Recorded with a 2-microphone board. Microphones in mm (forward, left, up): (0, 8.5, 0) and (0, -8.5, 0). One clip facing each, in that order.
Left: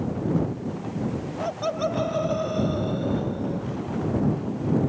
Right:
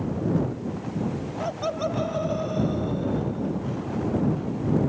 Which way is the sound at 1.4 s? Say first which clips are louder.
Left 1 dB; 5° left (ahead or behind).